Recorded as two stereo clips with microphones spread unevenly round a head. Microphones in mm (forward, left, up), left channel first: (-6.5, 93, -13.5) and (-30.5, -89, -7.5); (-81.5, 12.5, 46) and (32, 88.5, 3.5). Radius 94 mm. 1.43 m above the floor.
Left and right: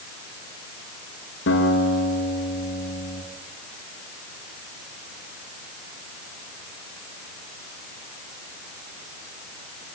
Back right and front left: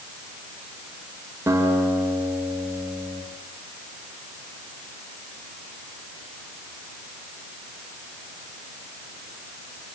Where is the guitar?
110° left, 6 m.